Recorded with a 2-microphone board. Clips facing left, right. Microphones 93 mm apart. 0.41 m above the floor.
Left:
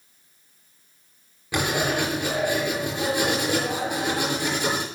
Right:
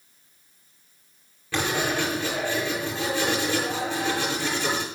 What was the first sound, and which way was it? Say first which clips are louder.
Writing: left 1 dB; 15° left (ahead or behind).